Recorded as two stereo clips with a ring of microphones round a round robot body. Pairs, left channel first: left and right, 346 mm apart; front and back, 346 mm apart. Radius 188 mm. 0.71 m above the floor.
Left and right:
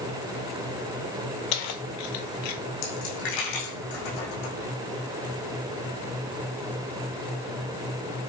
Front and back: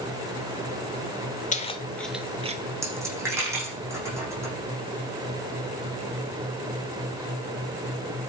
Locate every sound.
1.5 s keys jangling: 70° left, 1.7 m; by 2.6 s 110° left, 1.5 m
2.8 s a dropped coin: 100° left, 8.5 m